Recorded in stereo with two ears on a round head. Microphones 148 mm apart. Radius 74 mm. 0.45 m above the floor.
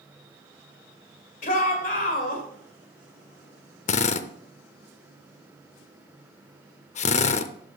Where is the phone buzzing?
No phone buzzing in this recording.